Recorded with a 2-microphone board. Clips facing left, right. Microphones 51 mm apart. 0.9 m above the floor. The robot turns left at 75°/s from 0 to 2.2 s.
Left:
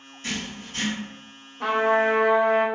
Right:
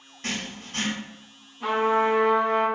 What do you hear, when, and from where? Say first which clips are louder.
0.2 s writing: even; 55° right, 1.1 m; by 0.9 s 110° right, 1.1 m
1.6 s a trumpet: left 1 dB; 90° left, 0.8 m; by 2.6 s 45° left, 0.8 m